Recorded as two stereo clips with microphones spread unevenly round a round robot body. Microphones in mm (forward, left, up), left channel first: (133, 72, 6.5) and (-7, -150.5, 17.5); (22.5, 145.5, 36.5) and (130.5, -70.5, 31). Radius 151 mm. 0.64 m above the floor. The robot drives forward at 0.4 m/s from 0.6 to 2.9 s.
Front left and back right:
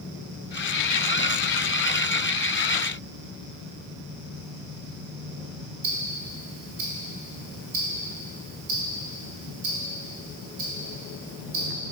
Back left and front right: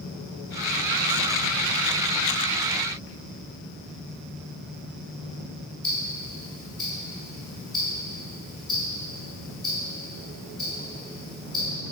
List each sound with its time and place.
5.8 s ticking: 155° right, 1.4 m